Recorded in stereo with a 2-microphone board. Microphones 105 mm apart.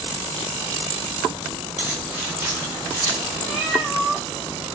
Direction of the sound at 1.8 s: 15° right (ahead or behind).